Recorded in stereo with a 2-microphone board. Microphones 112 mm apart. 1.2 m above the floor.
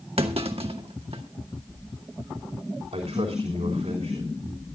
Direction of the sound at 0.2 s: 60° right (ahead or behind).